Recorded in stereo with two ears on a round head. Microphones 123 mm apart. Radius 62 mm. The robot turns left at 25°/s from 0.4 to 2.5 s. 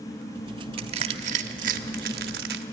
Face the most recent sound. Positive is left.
turn(degrees=-85)